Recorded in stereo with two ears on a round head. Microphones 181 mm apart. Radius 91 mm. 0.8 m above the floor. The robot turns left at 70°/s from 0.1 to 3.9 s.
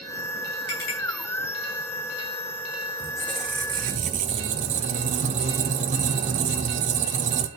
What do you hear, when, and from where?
0.7 s a clink: 55° left (ahead or behind), 5 m; by 1.0 s 35° left (ahead or behind), 5 m
3.0 s a squeak: 25° left, 0.8 m; by 7.5 s 35° right, 0.8 m